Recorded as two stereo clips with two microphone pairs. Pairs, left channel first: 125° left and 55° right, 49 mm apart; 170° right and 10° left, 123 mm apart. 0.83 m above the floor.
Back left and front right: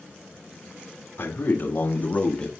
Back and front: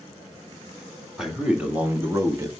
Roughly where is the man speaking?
Left.